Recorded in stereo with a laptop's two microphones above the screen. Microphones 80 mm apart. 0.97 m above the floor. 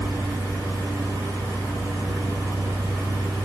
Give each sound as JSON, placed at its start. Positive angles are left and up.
{"t": 0.0, "sound": "a fan", "side_deg": -15, "distance_m": 8.0}